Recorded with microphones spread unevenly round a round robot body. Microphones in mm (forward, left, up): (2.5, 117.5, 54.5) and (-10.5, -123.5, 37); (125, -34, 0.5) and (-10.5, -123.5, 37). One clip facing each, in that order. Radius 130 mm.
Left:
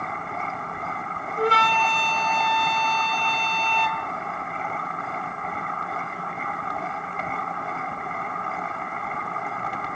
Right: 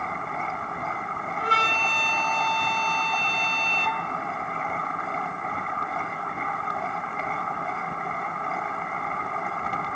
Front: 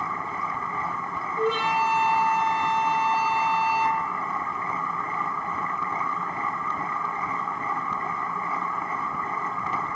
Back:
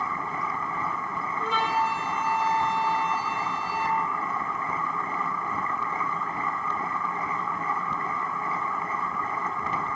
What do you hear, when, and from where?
1.4 s a flute: 65° left, 1.3 m